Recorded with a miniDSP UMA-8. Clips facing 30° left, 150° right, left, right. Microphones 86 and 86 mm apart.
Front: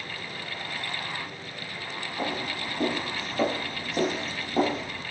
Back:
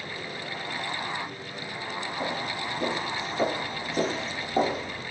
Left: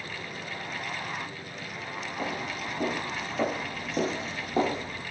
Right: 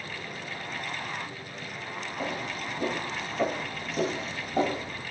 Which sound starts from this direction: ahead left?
Footsteps, at 2.2 s.